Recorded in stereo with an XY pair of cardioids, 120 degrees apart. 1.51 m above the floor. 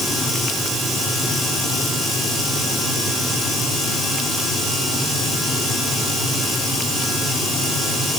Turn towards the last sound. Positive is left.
No sound to turn to.